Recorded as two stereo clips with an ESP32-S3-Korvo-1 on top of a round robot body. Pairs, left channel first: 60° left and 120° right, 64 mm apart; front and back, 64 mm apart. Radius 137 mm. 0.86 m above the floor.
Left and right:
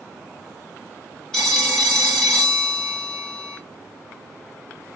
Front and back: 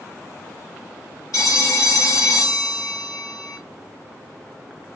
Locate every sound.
1.3 s a phone ringing: 20° right, 2 m